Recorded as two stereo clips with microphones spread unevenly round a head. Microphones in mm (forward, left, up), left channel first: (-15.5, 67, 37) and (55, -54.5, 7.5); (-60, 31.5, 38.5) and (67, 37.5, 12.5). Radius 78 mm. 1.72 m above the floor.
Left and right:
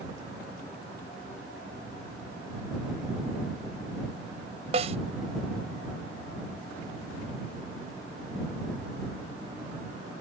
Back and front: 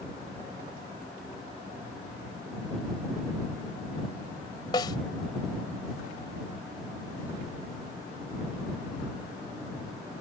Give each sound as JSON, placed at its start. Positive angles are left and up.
{"t": 4.7, "sound": "a snare drum", "azimuth_deg": -115}